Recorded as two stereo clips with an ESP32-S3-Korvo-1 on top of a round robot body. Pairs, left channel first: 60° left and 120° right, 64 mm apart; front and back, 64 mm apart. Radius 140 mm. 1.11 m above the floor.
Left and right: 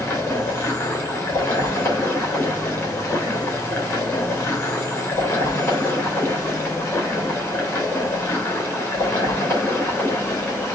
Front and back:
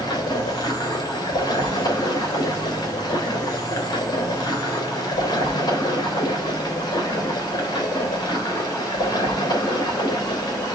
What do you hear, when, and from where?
0.0 s running water: 5° left, 2.5 m